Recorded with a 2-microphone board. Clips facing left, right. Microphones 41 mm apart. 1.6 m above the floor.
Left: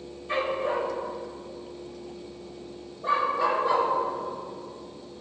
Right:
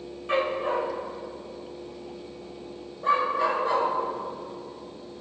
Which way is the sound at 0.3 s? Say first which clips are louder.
Right 1 dB; 70° right (ahead or behind).